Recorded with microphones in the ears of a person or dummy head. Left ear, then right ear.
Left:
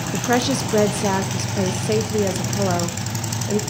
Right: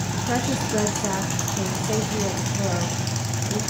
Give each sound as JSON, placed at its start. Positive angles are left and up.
{"t": 0.1, "sound": "a woman speaking", "side_deg": 80, "distance_m": 1.1}